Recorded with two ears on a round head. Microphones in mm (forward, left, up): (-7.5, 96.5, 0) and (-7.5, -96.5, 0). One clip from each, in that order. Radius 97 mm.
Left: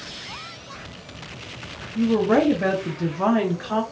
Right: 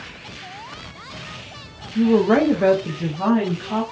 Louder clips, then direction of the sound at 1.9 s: Right 3 dB; 45° right (ahead or behind).